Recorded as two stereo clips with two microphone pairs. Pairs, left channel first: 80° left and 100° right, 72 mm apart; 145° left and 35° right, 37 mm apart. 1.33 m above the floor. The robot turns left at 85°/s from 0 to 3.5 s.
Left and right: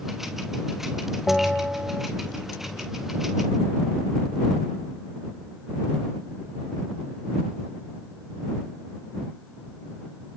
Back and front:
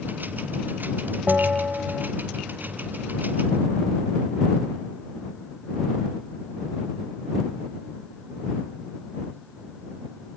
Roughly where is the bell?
Ahead.